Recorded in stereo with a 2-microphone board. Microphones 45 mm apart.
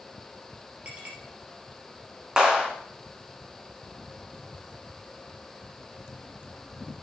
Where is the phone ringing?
No phone ringing in this recording.